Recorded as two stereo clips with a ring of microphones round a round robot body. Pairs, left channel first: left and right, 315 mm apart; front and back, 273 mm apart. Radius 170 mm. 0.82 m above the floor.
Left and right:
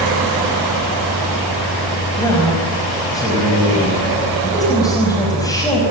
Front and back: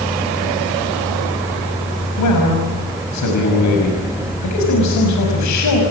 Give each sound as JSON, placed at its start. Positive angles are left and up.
{"t": 2.2, "sound": "a man speaking", "azimuth_deg": 10, "distance_m": 5.5}